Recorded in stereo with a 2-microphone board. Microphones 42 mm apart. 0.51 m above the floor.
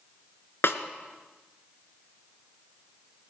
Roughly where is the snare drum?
Left.